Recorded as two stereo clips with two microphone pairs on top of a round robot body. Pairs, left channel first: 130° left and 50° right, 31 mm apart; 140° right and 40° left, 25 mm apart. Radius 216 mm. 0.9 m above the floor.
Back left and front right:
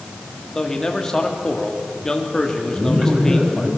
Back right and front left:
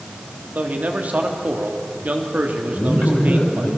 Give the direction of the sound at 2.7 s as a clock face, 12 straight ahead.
4 o'clock.